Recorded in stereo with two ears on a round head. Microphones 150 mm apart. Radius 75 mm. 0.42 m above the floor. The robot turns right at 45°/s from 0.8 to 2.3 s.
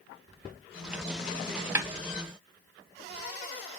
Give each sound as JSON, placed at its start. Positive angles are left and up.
{"t": 1.8, "sound": "a snare drum", "side_deg": -10, "distance_m": 0.8}